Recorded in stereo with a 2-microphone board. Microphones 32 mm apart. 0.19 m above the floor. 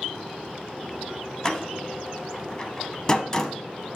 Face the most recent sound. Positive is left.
turn(degrees=20)  # may be behind; listen again after turning